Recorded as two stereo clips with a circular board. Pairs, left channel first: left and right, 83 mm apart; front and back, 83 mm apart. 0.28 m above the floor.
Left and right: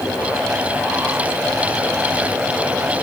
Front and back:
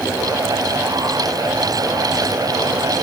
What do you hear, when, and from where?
Only background noise.